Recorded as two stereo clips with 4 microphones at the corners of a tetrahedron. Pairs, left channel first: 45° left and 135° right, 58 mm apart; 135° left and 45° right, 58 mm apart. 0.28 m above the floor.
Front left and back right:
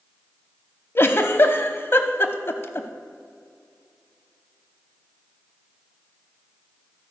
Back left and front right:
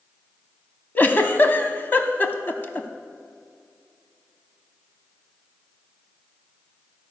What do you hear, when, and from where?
0.9 s a giggle: 85° left, 0.6 m